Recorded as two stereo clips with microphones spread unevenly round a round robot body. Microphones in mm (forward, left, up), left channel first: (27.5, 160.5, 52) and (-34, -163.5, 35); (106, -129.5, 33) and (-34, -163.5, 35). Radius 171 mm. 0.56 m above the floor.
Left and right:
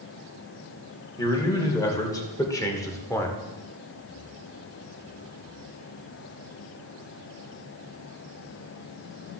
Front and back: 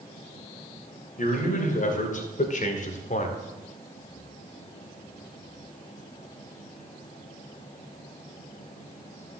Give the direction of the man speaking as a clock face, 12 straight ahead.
12 o'clock.